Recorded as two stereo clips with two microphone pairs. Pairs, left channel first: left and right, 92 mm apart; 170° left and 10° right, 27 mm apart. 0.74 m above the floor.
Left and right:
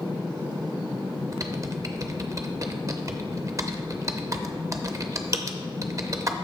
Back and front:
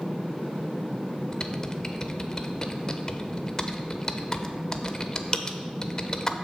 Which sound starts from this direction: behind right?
Typing on a keyboard, at 1.3 s.